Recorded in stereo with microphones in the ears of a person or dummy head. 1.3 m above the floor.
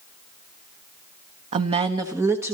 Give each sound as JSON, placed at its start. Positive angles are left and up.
{"t": 1.5, "sound": "a woman speaking", "side_deg": -40, "distance_m": 0.9}